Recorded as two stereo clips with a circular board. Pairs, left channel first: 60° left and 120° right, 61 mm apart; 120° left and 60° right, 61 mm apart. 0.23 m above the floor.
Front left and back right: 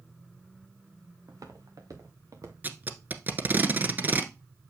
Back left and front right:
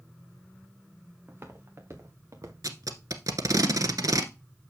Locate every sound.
1.3 s footsteps: 110° right, 2.5 m; by 2.5 s 85° right, 2.0 m
2.6 s tape being pulled: 60° right, 0.9 m